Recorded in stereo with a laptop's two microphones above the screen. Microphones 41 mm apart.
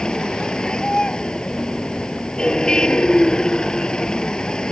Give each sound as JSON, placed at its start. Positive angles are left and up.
{"t": 0.0, "sound": "a vehicle", "side_deg": 15}